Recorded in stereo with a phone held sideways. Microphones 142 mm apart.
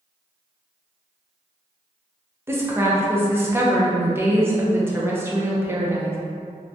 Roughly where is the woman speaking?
Centre.